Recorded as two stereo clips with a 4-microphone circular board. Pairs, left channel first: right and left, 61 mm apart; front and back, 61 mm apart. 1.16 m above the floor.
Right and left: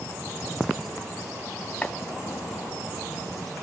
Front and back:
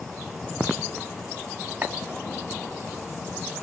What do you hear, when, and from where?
1.8 s chopping: 145° right, 1.3 m